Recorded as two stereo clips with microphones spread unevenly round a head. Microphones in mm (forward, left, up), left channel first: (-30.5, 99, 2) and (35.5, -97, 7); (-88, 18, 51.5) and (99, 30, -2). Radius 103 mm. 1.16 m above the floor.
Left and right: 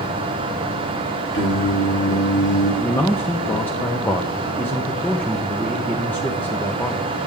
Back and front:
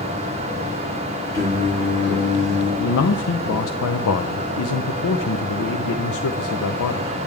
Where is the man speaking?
170° right, 0.6 m.